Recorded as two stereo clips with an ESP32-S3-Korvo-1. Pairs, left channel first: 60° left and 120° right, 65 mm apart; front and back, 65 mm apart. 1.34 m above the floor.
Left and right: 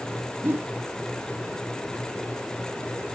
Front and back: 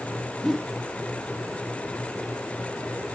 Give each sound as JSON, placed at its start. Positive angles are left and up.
{"t": 0.4, "sound": "a whoosh", "azimuth_deg": -85, "distance_m": 0.9}